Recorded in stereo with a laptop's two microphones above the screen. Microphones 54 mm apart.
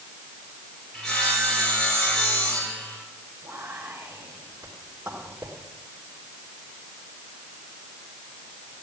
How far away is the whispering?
About 2.5 m.